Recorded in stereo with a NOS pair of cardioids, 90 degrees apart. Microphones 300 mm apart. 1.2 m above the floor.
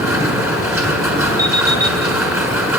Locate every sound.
0.0 s a machine running: 10° right, 6 m
1.4 s an alarm clock: 10° right, 4.5 m